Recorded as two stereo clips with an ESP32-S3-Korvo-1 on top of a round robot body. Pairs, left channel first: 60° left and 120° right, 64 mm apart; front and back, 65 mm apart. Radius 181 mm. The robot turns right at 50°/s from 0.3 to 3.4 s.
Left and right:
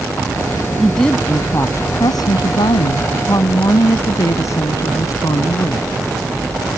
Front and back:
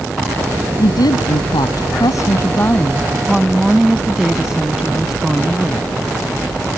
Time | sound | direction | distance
0.8 | a woman speaking | 30° right | ?